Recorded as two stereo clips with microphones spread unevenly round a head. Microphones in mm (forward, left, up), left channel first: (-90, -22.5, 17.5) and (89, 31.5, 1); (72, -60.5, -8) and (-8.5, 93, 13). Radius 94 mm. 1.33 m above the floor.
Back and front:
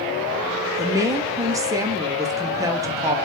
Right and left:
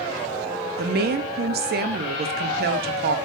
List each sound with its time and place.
0.8 s a woman speaking: 85° left, 0.5 m